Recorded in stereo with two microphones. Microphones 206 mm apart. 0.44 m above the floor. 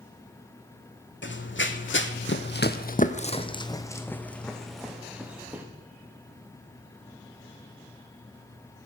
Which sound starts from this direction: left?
Running footsteps, at 1.2 s.